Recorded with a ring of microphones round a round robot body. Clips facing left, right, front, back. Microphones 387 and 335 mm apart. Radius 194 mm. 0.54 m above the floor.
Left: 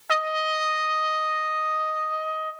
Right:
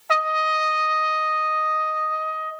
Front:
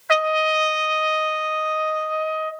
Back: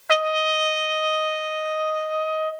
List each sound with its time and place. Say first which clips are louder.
0.1 s a trumpet: right 1 dB, front 1 dB; 145° left, 0.9 m